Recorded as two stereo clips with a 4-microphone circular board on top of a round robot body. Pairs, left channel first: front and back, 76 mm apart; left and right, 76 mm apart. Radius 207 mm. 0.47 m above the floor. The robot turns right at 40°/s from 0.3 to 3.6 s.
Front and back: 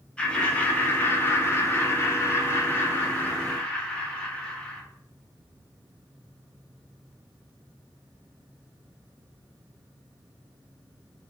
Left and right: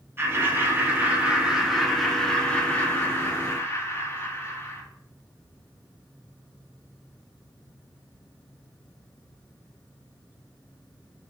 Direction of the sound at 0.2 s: 65° right.